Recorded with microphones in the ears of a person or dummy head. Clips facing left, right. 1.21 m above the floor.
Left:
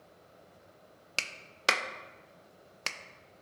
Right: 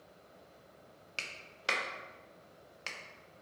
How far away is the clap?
About 0.5 m.